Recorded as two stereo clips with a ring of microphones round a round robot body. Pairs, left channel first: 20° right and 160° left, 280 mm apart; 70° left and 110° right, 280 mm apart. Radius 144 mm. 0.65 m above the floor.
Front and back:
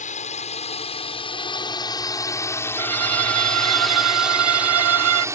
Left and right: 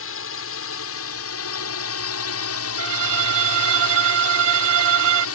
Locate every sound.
0.0 s a drone: 35° left; by 5.3 s 80° left
2.8 s a violin: 160° right